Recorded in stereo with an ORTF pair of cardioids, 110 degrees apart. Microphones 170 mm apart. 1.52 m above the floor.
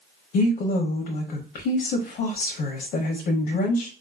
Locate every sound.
0.3 s a woman speaking: 70° left, 0.8 m